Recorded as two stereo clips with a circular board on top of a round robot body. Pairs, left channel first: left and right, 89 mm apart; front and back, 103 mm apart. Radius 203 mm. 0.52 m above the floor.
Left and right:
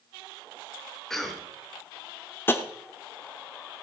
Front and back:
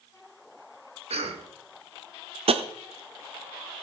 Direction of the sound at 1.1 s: 175° left.